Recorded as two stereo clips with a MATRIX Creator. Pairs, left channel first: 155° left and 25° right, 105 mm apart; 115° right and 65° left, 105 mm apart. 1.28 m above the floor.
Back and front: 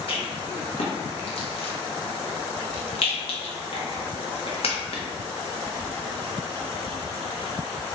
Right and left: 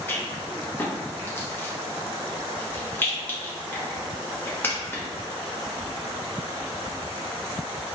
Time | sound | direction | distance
0.1 | a rattle | straight behind | 0.7 m